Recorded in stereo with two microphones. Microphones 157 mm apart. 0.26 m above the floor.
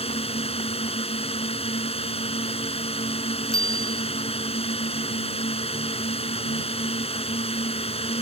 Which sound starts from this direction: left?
A drone, at 0.0 s.